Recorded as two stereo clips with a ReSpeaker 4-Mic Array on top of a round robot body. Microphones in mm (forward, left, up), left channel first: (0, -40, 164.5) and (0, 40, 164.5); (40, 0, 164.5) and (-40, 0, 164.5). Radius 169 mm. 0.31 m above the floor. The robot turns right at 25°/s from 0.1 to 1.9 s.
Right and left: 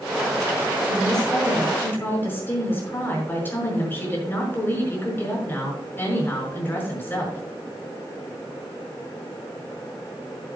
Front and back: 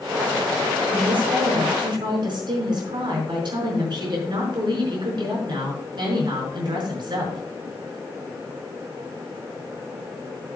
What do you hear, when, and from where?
0.8 s a woman speaking: straight behind, 5.5 m; by 7.4 s 155° right, 5.5 m